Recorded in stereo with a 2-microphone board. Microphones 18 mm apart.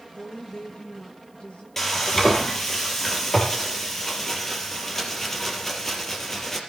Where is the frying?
20° left (ahead or behind), 4 m.